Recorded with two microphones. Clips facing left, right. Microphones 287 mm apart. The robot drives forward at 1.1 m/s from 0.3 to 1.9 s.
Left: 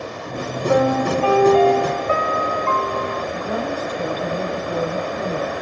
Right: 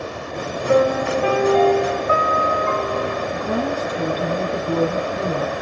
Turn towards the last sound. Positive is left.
turn(degrees=-55)  # may be behind; listen again after turning